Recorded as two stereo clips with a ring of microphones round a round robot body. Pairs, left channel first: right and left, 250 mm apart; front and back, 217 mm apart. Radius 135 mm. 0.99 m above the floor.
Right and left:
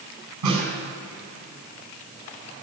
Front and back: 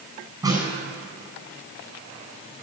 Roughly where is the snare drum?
Left.